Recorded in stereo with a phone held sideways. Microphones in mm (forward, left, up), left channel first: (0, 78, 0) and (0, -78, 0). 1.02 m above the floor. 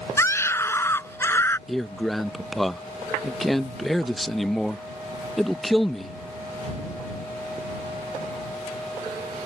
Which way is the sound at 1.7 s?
Centre (ahead or behind).